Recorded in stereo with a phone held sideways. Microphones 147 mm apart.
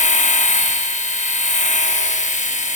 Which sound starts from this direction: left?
A machine running, at 0.0 s.